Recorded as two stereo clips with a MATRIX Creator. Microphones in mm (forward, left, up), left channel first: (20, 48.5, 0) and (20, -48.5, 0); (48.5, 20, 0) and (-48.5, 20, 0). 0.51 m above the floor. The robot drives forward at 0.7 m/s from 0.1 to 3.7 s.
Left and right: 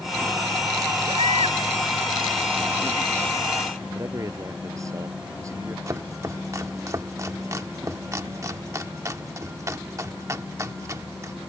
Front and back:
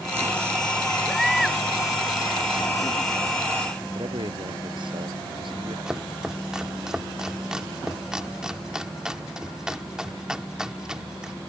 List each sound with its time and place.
1.1 s a baby crying: 85° right; by 1.6 s 90° right
4.0 s a man speaking: 145° right
5.9 s chopping: 105° right